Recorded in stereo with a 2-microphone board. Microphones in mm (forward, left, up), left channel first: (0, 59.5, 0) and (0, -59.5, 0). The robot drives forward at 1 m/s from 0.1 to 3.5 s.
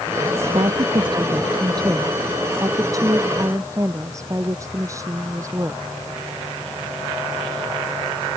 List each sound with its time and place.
0.5 s a woman speaking: 45° right (ahead or behind); by 6.0 s 25° right (ahead or behind)